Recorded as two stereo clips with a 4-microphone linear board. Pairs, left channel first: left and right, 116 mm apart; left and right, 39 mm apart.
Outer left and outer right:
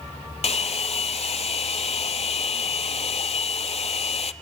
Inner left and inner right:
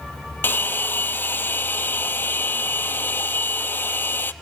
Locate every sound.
0.4 s a hair dryer: 65° left (ahead or behind), 0.5 m